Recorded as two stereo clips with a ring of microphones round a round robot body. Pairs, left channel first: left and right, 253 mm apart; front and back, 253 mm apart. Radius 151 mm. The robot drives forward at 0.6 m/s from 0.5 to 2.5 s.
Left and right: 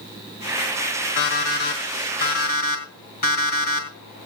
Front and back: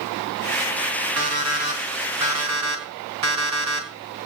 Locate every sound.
1.2 s an alarm clock: 140° left, 2.5 m; by 3.9 s 150° left, 3 m